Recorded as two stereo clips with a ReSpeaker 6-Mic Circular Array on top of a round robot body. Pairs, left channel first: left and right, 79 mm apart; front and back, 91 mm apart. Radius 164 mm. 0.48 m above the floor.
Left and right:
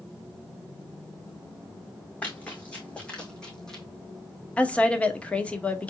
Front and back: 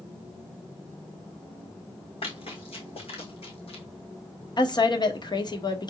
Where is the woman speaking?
20° left, 1.7 m.